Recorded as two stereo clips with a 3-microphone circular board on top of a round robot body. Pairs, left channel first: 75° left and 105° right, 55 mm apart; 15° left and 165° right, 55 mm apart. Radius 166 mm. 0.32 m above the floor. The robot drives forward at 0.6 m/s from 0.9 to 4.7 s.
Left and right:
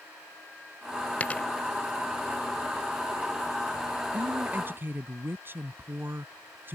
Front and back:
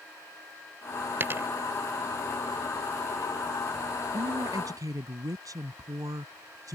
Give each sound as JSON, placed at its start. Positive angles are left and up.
{"t": 1.2, "sound": "a dropped coin", "azimuth_deg": 140}
{"t": 4.1, "sound": "a woman speaking", "azimuth_deg": -155}